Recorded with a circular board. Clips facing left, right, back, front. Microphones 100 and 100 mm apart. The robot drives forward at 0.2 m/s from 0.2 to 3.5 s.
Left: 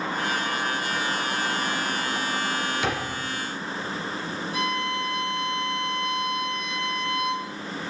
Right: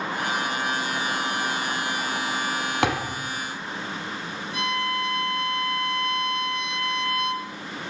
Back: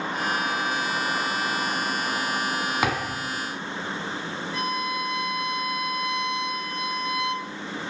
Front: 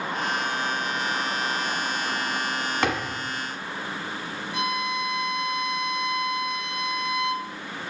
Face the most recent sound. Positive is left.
turn(degrees=60)